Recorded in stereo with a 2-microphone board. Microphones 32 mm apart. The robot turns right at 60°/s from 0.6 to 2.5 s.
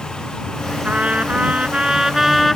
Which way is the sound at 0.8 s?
95° right.